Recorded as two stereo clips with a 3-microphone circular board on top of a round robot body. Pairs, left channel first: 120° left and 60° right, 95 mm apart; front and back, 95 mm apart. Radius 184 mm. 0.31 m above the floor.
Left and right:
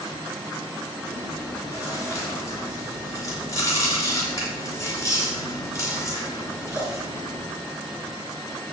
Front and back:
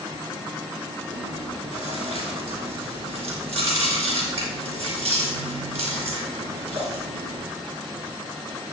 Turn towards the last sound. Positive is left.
turn(degrees=180)